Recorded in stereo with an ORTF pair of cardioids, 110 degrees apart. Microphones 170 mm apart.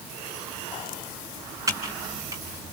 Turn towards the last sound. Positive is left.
turn(degrees=-20)